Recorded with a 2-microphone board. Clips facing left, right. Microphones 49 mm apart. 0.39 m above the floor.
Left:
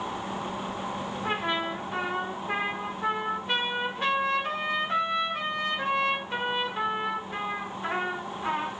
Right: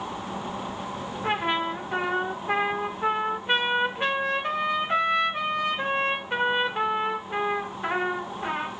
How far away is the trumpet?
About 1.4 m.